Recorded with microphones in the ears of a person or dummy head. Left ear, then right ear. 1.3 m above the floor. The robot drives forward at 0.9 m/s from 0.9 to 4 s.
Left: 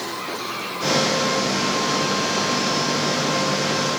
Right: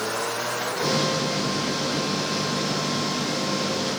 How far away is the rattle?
No rattle in this recording.